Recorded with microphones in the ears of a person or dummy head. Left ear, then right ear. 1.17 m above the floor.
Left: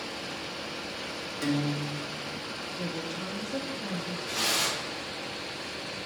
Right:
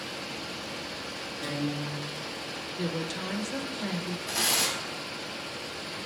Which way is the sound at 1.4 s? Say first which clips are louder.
Left 3 dB; 70° left (ahead or behind).